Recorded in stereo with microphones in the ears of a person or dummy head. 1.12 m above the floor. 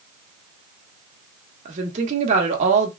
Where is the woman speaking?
50° right (ahead or behind), 1.4 m.